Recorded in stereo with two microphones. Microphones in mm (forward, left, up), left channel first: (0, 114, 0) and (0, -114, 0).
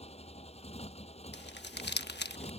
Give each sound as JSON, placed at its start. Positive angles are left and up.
{"t": 0.0, "sound": "a motorcycle", "side_deg": 30}
{"t": 1.3, "sound": "crumpling", "side_deg": 50}